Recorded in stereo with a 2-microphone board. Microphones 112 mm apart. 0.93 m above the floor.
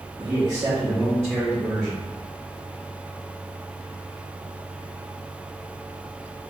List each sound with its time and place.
0.2 s a man speaking: 40° right (ahead or behind), 1.5 m; by 2.1 s 15° left (ahead or behind), 1.4 m